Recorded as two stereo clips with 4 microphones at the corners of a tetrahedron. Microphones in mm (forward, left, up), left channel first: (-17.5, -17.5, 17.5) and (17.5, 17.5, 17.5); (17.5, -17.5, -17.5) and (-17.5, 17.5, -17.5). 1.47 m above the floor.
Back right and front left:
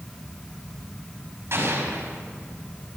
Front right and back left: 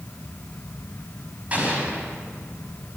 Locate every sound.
1.5 s an explosion: 75° left, 5 m